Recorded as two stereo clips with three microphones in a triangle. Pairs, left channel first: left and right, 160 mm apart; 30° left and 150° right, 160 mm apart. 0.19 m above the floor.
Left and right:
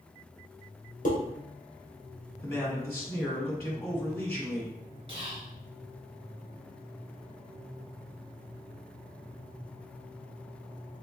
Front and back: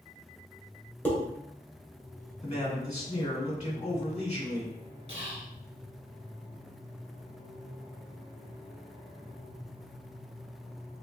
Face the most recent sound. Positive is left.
turn(degrees=-125)